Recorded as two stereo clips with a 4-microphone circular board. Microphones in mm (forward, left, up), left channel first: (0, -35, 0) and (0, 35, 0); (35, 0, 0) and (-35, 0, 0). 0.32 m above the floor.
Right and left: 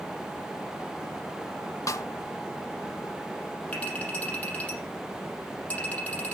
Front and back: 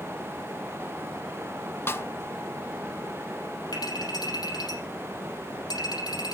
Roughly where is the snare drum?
Ahead right.